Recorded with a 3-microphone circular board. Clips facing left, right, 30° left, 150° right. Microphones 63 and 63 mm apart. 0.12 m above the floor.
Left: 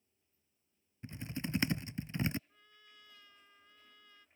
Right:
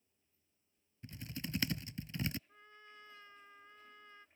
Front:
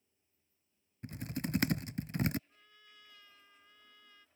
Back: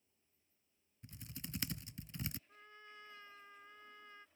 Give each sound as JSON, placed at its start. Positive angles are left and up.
{"t": 1.0, "sound": "typing on a keyboard", "azimuth_deg": 30}
{"t": 2.5, "sound": "a trumpet", "azimuth_deg": -120}